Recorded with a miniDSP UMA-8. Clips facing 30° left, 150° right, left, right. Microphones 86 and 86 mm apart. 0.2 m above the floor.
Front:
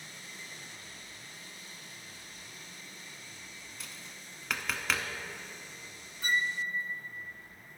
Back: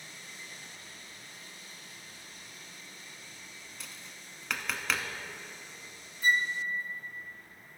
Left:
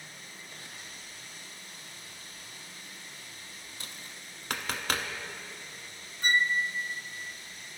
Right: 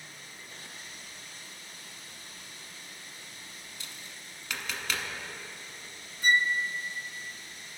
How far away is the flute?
About 0.5 m.